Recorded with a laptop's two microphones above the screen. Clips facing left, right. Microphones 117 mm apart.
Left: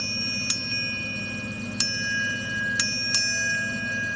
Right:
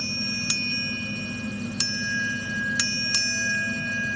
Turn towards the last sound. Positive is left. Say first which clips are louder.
# right 2 dB
turn(degrees=25)  # may be behind; listen again after turning